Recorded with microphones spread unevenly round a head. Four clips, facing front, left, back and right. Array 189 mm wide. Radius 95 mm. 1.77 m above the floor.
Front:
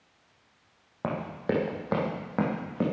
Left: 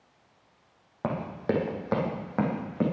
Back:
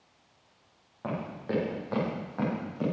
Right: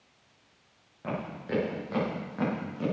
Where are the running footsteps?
45° left, 5 m; by 2.8 s 30° left, 7 m.